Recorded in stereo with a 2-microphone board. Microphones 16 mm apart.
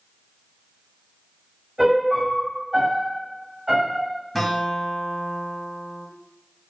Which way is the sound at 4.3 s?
15° left (ahead or behind).